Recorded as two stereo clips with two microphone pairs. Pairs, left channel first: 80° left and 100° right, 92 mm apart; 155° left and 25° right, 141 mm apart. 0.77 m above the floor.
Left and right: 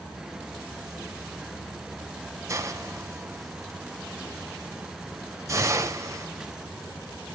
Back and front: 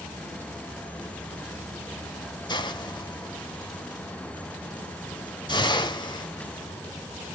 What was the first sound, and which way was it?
A hiss, 150° right.